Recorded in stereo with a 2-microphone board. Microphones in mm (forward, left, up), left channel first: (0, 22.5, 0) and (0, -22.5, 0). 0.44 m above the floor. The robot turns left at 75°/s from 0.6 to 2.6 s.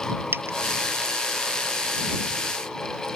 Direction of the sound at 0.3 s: 60° right (ahead or behind).